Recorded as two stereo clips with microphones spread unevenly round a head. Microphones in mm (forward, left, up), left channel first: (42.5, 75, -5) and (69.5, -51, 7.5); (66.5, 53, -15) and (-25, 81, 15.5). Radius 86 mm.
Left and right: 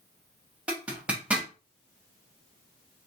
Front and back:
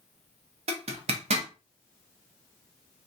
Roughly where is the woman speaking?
No woman speaking in this recording.